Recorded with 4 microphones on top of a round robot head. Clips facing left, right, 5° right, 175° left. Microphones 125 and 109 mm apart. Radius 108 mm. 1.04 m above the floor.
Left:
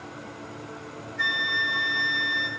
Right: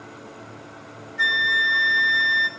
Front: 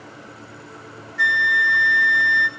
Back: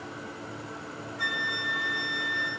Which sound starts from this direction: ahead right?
A flute, at 1.2 s.